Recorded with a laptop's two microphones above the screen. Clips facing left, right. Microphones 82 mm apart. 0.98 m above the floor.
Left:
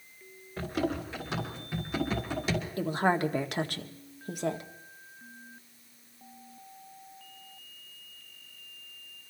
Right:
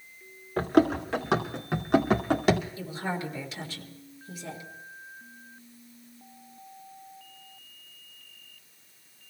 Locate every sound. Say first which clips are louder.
0.6 s running footsteps: right 9 dB; 75° right (ahead or behind), 3 m; by 2.6 s 60° right (ahead or behind), 1.9 m
2.8 s a woman speaking: left 6 dB; 60° left (ahead or behind), 1.8 m